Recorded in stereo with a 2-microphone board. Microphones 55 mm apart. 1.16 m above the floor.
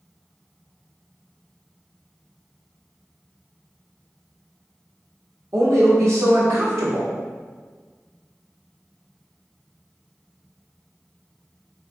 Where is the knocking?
I don't hear knocking.